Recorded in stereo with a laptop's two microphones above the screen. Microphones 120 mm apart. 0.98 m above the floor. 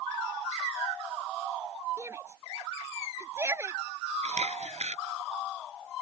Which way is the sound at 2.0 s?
20° right (ahead or behind).